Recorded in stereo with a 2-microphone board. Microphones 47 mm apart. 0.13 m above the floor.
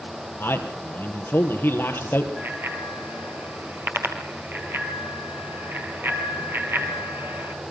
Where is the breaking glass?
I don't hear breaking glass.